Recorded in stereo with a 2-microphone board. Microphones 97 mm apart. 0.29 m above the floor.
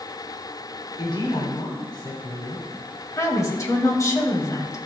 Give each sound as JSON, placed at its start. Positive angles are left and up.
{"t": 1.0, "sound": "a woman speaking", "side_deg": 55, "distance_m": 1.9}
{"t": 3.2, "sound": "a woman speaking", "side_deg": 35, "distance_m": 1.7}